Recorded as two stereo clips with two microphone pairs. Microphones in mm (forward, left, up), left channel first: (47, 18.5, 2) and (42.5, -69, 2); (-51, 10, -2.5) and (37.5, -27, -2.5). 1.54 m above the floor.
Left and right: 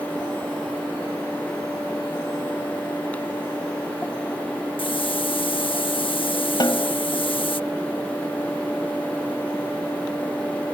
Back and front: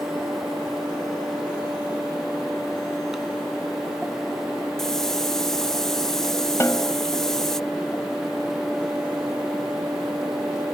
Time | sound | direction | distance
4.8 | a hiss | 75° left | ?
6.6 | a snare drum | 105° left | ?